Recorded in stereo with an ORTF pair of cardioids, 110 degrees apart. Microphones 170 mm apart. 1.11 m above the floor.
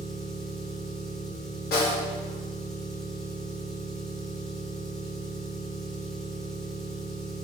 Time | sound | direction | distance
0.0 | an engine running | straight ahead | 0.7 m
1.7 | a snare drum | 65° left | 0.8 m